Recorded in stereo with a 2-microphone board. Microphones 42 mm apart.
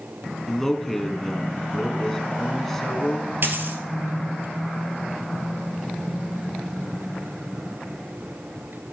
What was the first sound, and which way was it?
A man speaking, 5° left (ahead or behind).